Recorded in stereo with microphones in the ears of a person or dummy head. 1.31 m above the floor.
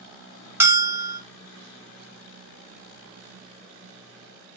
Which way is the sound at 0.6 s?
10° right (ahead or behind).